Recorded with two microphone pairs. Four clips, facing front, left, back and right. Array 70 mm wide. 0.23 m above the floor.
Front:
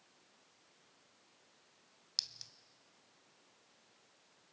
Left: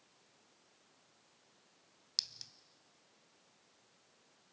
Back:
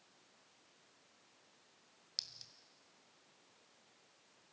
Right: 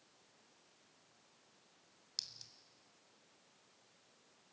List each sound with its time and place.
2.2 s a clink: 55° left, 0.8 m